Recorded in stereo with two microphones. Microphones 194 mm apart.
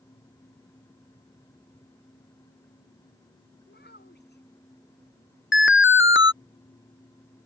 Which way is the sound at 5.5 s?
80° left.